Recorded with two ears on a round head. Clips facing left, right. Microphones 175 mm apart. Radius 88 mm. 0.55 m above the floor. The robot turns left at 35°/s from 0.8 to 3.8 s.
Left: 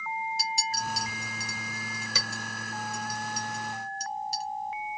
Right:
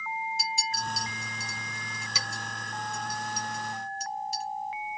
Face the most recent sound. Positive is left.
turn(degrees=35)  # may be behind; listen again after turning